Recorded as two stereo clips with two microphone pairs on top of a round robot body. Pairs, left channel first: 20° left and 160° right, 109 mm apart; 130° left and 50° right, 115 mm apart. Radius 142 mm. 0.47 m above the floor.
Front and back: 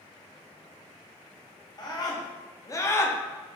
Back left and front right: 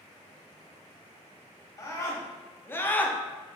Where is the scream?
70° left, 1.2 m; by 3.2 s 75° left, 0.7 m.